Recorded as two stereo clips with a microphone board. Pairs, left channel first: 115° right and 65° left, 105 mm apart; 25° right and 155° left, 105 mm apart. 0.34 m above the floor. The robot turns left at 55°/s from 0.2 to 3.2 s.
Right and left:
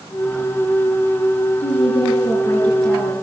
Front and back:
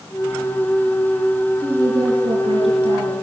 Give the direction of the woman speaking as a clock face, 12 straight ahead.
4 o'clock.